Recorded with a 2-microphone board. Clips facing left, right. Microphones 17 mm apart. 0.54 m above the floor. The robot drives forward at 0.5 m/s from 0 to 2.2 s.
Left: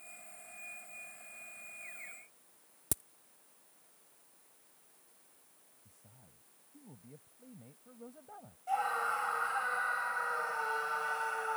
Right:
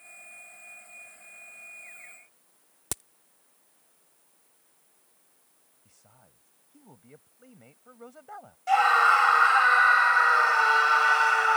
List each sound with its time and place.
2.9 s a crack: 30° right (ahead or behind)
5.8 s a man speaking: 50° right (ahead or behind)
8.7 s a scream: 65° right (ahead or behind)